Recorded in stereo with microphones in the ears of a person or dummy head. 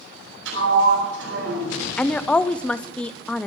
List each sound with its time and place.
0.5 s a sliding door: 75° right (ahead or behind), 7.5 m
2.0 s a woman speaking: 5° left (ahead or behind), 0.7 m